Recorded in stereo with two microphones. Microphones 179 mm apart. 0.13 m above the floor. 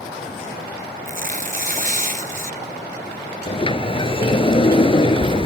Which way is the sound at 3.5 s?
35° left (ahead or behind).